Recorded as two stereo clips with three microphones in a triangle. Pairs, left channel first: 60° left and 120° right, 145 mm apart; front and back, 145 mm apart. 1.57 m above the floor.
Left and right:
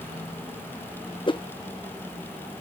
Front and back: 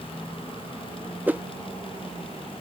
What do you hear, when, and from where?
1.3 s a whoosh: 105° left